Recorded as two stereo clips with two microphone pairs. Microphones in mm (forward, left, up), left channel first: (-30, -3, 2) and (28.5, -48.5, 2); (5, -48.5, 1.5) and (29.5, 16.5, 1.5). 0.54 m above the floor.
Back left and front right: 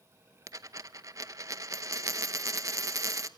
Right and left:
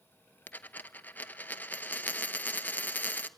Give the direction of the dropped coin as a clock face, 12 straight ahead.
2 o'clock.